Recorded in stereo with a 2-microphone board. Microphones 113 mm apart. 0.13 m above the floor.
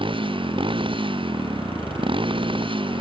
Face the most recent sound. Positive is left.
turn(degrees=-50)  # may be behind; listen again after turning